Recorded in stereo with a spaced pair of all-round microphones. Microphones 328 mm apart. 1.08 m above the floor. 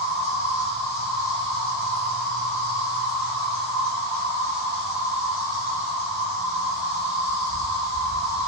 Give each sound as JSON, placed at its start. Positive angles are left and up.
{"t": 0.0, "sound": "an insect", "side_deg": 30, "distance_m": 1.5}